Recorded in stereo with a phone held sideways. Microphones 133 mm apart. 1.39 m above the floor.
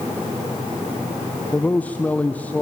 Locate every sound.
1.5 s a man speaking: 10° left (ahead or behind), 0.7 m